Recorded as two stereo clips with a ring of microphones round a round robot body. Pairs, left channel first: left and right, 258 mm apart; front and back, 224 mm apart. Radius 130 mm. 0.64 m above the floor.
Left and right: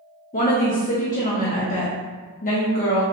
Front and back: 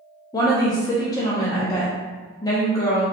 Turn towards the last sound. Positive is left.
turn(degrees=65)